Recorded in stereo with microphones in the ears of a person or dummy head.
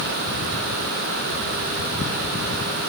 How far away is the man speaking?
No man speaking in this recording.